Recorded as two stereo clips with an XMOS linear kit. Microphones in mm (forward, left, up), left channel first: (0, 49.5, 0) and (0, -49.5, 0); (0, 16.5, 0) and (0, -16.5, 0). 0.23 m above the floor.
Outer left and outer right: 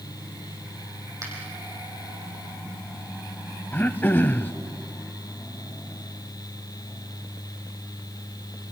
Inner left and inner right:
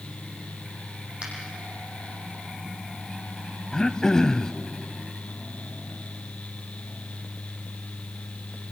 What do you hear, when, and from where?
1.2 s a finger snap: 35° right (ahead or behind), 8 m
3.7 s throat clearing: 20° left (ahead or behind), 0.7 m